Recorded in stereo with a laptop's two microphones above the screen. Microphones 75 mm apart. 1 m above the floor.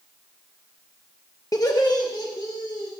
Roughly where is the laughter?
Left.